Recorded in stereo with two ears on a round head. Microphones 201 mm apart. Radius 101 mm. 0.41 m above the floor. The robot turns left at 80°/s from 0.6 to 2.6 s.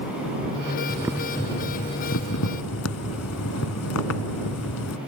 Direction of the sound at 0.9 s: 155° right.